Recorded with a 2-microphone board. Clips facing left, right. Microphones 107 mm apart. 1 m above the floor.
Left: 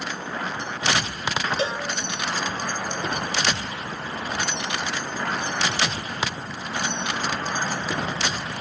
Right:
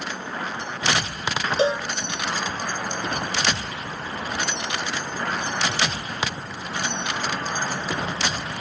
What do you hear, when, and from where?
1.6 s a cowbell: 30° right (ahead or behind), 1.1 m